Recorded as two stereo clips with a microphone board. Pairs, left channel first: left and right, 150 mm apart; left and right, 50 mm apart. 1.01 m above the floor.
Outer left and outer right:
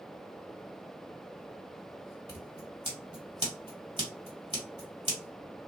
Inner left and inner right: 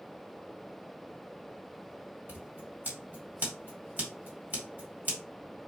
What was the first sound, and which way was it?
Scissors, 35° right (ahead or behind).